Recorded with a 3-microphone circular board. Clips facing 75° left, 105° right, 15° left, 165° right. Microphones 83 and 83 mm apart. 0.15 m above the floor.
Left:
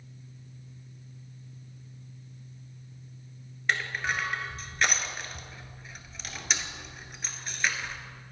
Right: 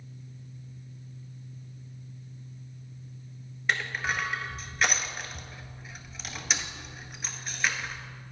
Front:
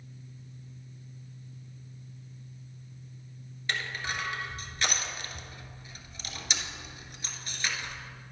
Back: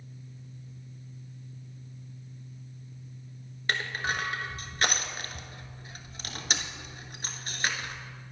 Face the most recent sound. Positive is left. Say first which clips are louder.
# even, back 3 dB
turn(degrees=165)